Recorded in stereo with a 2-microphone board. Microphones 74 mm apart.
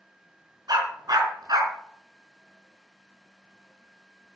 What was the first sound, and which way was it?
A dog barking, 65° right (ahead or behind).